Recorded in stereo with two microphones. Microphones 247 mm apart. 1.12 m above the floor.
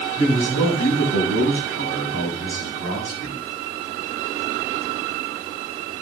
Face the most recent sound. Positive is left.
turn(degrees=65)  # may be behind; listen again after turning